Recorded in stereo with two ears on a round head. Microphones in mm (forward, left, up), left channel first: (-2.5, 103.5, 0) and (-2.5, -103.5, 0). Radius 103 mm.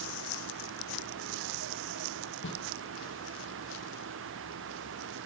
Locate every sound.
2.4 s a snare drum: 50° left (ahead or behind), 5 m